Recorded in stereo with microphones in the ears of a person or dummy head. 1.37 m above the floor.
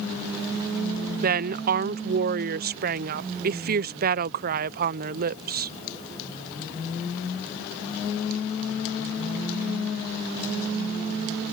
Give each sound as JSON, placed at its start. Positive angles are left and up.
{"t": 1.2, "sound": "a woman speaking", "side_deg": -50}